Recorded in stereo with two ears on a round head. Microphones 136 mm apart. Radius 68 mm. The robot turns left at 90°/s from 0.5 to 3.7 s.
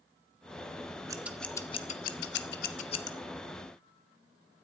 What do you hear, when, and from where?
1.1 s scissors: 25° right (ahead or behind), 1.1 m; by 3.1 s 20° left (ahead or behind), 1.1 m